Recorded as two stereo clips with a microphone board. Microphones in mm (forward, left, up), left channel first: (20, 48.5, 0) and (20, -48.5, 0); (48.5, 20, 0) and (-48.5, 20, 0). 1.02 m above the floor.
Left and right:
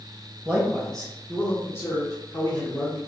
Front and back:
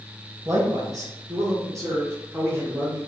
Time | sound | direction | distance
0.5 | a man speaking | 160° right | 0.8 m